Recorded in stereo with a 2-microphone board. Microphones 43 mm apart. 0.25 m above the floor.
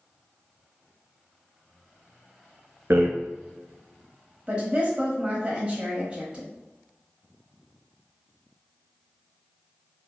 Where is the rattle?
75° right (ahead or behind), 0.7 m.